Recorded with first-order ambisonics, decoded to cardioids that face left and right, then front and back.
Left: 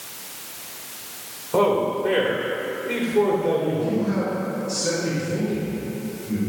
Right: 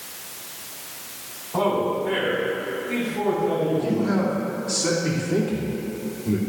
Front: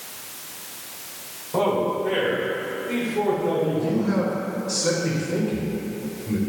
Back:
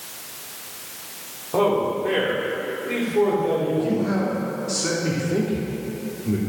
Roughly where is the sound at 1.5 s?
Behind left.